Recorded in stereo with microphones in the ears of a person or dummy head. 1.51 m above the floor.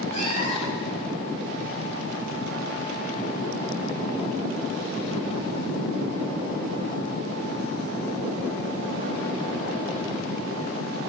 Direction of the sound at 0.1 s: 30° left (ahead or behind).